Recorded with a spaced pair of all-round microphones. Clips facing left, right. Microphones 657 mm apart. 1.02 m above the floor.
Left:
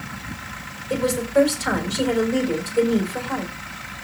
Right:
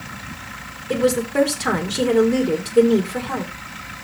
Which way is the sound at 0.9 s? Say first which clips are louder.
Right 2 dB; 80° right.